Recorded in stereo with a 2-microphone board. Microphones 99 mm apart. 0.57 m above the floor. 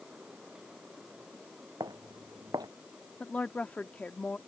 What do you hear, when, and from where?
1.8 s footsteps: 45° right (ahead or behind)
3.2 s a woman speaking: 15° left (ahead or behind)